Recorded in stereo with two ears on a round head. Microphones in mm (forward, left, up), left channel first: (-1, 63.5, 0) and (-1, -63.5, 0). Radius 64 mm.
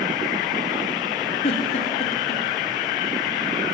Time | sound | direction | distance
1.4 | a giggle | 45° left (ahead or behind) | 3 m